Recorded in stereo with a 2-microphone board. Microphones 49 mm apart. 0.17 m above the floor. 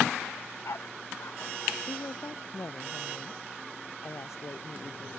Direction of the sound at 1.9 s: 75° left (ahead or behind).